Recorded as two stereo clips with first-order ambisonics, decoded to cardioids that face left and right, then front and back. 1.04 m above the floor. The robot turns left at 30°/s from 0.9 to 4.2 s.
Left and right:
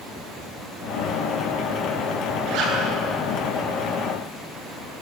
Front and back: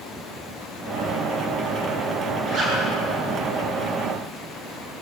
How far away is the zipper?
About 10 m.